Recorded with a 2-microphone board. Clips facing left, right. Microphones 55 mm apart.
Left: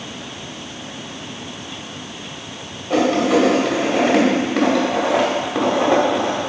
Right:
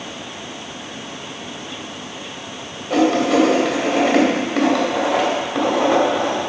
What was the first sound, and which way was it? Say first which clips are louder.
Writing: even; 5° left (ahead or behind).